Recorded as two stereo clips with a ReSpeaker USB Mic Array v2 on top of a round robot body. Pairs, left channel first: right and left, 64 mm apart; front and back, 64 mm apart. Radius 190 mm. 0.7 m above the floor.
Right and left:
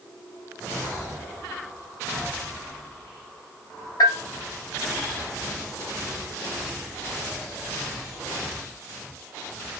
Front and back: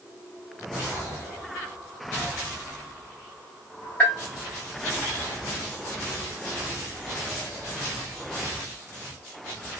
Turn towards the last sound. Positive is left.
turn(degrees=-70)